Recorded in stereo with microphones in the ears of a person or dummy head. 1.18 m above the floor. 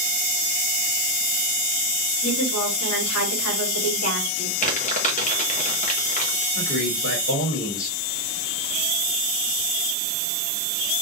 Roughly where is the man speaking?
Left.